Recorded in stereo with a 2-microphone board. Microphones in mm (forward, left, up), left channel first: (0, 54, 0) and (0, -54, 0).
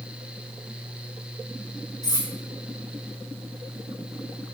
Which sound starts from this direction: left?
Cutlery clinking, at 2.0 s.